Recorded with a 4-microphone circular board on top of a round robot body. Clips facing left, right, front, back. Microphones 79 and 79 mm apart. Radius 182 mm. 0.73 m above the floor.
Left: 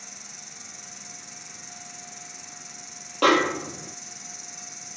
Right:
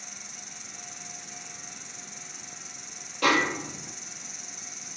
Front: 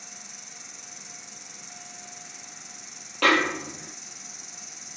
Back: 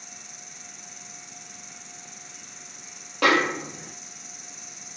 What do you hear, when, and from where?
0.0 s an insect: 135° right, 0.9 m
3.2 s a snare drum: 105° left, 1.6 m